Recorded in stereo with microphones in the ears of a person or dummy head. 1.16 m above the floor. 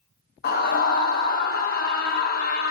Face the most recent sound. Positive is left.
turn(degrees=50)  # may be behind; listen again after turning